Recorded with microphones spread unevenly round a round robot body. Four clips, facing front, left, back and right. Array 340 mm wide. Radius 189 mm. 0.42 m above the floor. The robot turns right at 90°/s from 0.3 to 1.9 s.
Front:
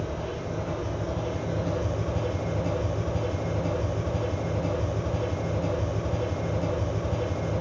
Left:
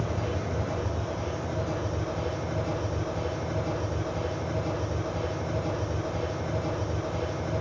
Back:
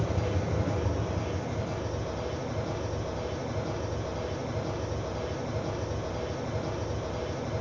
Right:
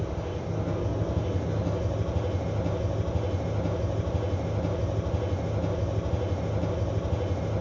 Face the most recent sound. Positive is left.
turn(degrees=-35)